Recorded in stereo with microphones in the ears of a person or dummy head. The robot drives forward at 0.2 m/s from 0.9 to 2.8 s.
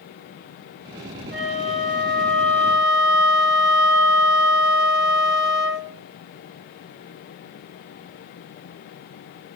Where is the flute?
40° right (ahead or behind), 0.6 m; by 5.9 s 50° right (ahead or behind), 0.5 m.